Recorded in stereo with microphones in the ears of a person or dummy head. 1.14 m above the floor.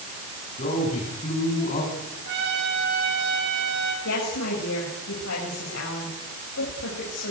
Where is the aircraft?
I don't hear an aircraft.